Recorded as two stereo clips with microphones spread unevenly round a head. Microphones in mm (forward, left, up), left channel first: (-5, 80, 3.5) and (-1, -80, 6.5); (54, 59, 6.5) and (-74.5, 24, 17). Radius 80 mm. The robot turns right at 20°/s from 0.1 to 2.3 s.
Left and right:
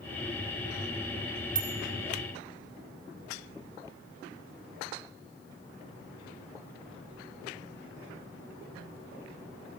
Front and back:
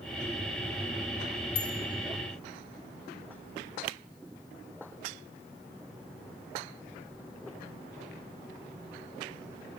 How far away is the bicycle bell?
About 5 m.